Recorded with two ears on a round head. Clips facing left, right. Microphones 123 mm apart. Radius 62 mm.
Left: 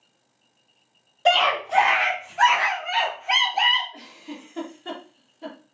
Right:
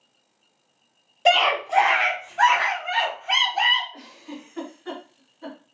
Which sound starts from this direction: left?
A giggle, at 3.9 s.